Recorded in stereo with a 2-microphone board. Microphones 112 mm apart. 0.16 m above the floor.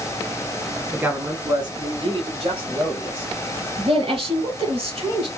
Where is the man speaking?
10° right (ahead or behind), 1.1 m; by 3.3 s 60° right (ahead or behind), 4 m.